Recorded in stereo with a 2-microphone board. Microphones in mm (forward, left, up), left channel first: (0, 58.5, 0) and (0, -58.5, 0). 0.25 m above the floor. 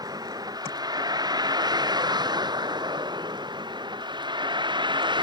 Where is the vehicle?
35° right (ahead or behind); by 5.2 s 40° right (ahead or behind).